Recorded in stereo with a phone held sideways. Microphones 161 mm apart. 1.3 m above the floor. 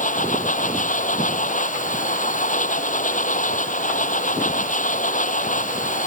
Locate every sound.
0.0 s a machine running: 55° left (ahead or behind)